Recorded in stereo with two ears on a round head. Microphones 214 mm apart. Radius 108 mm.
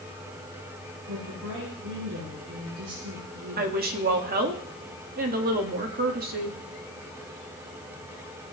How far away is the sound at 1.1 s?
About 9 m.